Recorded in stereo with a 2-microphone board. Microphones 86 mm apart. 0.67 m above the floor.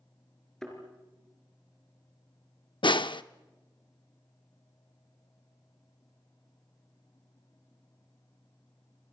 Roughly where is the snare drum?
Left.